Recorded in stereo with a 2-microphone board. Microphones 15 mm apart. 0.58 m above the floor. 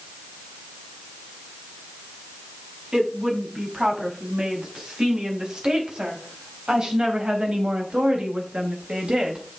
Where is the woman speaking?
40° right (ahead or behind), 5 m; by 9.5 s 75° right (ahead or behind), 4 m.